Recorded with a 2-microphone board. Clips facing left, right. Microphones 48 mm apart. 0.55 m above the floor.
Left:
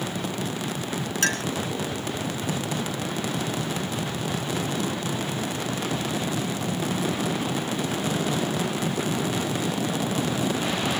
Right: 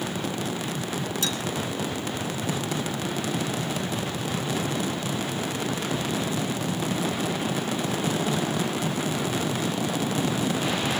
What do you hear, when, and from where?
1.2 s a clink: 65° left (ahead or behind)